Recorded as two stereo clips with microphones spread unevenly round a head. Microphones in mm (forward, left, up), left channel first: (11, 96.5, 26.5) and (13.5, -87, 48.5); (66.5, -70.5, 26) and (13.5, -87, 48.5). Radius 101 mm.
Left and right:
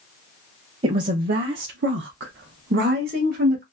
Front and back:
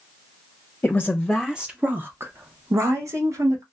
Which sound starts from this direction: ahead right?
A woman speaking, at 0.8 s.